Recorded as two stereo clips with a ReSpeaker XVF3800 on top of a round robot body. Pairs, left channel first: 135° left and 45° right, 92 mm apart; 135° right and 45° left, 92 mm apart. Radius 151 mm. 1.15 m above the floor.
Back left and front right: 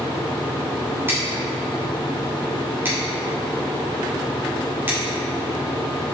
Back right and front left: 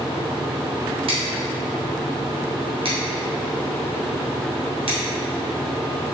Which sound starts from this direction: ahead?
Scissors, at 1.1 s.